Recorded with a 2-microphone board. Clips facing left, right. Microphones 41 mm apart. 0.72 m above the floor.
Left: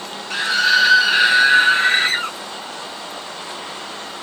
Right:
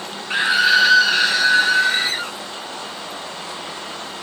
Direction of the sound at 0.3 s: 25° right (ahead or behind).